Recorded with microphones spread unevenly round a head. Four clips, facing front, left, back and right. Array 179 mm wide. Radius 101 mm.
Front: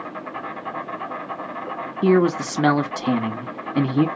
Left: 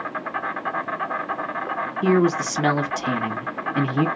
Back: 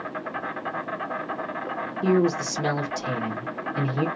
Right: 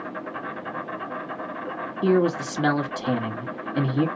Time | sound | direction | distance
0.0 | an insect | 95° left | 1.2 m
2.0 | a man speaking | 15° left | 1.6 m